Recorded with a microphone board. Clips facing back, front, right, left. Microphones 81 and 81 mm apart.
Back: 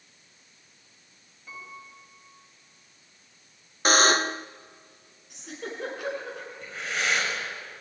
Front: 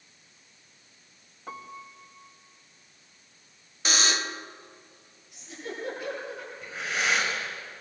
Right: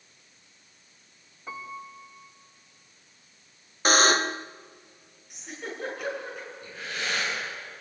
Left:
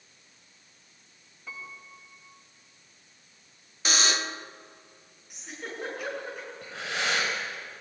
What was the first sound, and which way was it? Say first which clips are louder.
A piano: front 3 dB, right 6 dB; 30° right.